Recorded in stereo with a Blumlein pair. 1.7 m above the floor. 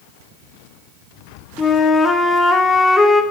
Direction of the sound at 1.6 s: 15° left.